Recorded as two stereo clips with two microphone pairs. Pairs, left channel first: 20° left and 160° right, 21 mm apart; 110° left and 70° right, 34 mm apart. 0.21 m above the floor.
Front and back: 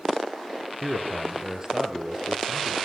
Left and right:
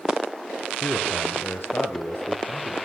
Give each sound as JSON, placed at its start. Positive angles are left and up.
{"t": 0.8, "sound": "a man speaking", "azimuth_deg": 130, "distance_m": 3.5}